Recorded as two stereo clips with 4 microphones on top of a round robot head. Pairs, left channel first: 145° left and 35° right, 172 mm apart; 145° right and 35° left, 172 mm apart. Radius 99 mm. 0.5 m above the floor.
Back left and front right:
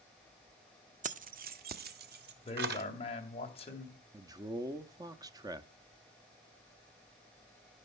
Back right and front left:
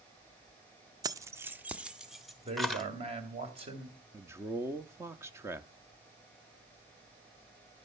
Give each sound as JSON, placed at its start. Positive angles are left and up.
{"t": 1.0, "sound": "keys jangling", "azimuth_deg": -25, "distance_m": 0.6}
{"t": 2.5, "sound": "a man speaking", "azimuth_deg": 90, "distance_m": 2.5}
{"t": 4.1, "sound": "a man speaking", "azimuth_deg": -15, "distance_m": 0.8}